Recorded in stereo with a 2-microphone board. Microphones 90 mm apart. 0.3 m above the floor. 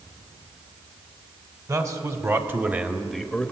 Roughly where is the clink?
No clink in this recording.